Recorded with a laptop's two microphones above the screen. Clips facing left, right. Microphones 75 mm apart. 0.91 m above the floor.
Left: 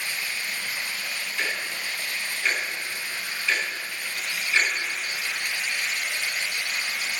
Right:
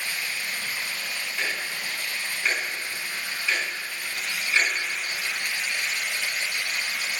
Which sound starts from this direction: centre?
Ticking, at 1.4 s.